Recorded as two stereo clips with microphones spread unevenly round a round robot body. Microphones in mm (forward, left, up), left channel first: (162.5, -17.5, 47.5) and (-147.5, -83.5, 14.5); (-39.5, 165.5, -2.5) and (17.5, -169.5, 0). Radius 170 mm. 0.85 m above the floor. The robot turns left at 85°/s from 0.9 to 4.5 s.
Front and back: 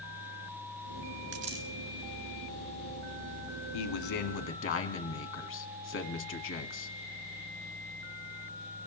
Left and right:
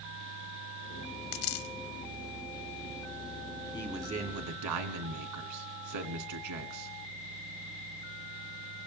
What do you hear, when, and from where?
1.3 s a dropped coin: 130° left, 0.9 m; by 1.7 s 100° left, 0.9 m
3.7 s a man speaking: 25° left, 1.9 m; by 6.9 s 40° right, 1.9 m